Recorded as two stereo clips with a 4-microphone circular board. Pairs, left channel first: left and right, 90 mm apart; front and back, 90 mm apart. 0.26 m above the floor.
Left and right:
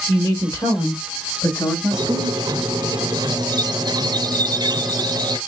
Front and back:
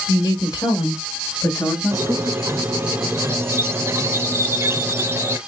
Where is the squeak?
125° right, 0.5 m.